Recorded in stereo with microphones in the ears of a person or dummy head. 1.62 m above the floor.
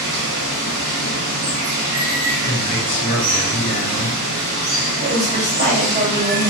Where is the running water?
55° right (ahead or behind), 1.1 m.